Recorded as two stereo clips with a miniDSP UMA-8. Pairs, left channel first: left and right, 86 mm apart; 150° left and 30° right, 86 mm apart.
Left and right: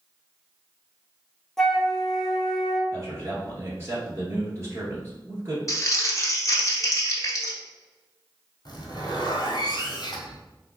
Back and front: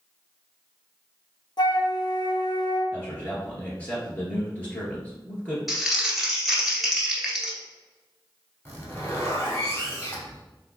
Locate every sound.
1.6 s a flute: 175° left, 0.7 m
2.9 s a man speaking: 140° right, 1.9 m
5.7 s crumpling: 55° left, 1.0 m
8.7 s a zipper: 90° left, 1.3 m